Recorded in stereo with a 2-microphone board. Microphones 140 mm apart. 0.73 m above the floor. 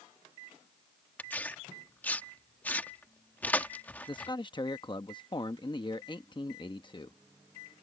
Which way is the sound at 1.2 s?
10° left (ahead or behind).